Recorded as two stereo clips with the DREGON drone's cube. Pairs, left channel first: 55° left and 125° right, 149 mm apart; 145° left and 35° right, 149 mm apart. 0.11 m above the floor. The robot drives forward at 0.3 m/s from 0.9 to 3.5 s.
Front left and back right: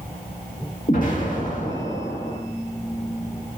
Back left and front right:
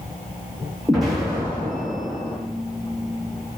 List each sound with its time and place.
0.9 s an explosion: 55° left, 1.1 m; by 2.4 s 80° left, 0.9 m